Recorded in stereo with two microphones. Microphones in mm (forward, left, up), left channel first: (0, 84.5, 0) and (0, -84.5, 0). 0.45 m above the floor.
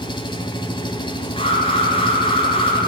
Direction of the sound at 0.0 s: 30° left (ahead or behind).